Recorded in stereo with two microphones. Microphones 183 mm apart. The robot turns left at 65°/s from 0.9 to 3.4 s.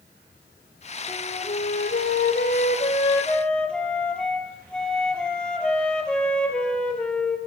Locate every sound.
1.1 s a flute: 155° left, 2.5 m; by 7.4 s 5° left, 2.5 m